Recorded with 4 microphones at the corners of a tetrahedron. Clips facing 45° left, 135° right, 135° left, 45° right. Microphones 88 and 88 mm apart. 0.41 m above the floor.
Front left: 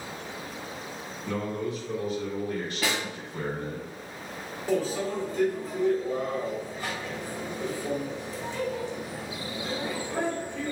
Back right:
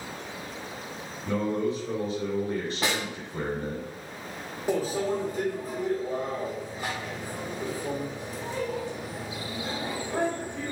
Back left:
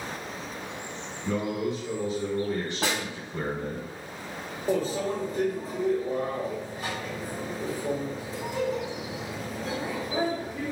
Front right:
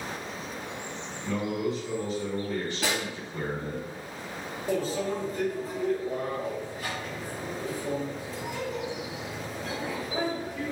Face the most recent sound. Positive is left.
turn(degrees=165)